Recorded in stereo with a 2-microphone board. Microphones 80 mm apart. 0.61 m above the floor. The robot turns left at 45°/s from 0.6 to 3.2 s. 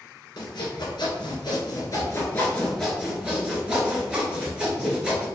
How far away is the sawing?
About 1.4 m.